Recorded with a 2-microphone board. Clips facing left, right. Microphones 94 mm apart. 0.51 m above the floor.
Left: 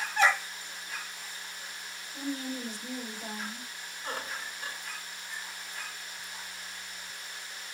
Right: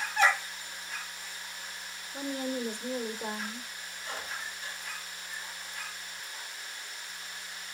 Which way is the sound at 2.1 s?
60° right (ahead or behind).